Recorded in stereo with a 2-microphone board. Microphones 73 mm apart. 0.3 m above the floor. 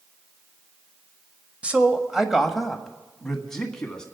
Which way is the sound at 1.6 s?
15° right (ahead or behind).